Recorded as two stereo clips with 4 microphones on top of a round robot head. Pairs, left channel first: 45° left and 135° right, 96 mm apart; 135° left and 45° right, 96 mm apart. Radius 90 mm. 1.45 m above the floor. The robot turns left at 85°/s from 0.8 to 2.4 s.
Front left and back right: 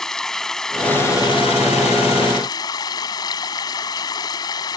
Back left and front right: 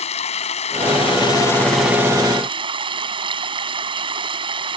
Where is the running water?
130° left; by 4.8 s 5° right.